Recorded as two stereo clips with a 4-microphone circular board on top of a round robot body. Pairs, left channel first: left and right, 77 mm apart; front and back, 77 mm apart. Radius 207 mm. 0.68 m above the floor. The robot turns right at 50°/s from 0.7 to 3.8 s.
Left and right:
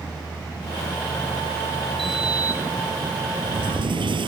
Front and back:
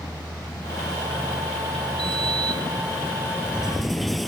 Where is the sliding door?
Straight behind; by 4.3 s 90° right.